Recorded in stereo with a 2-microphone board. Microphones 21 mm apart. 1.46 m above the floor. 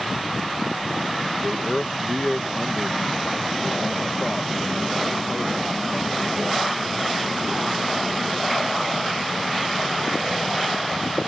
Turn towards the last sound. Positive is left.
turn(degrees=10)  # may be behind; listen again after turning